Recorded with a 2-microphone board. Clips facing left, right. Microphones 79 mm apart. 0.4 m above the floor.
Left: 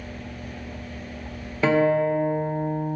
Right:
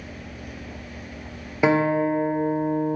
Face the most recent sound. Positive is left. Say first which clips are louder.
# even
turn(degrees=-15)  # may be behind; listen again after turning